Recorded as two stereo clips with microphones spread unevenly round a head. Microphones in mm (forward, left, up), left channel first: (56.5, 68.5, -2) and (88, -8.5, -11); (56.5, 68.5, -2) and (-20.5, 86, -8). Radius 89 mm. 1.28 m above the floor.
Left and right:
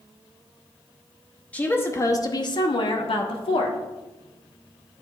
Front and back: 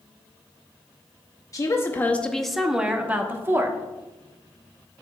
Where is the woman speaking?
35° left, 1.0 m; by 3.8 s 110° left, 1.5 m.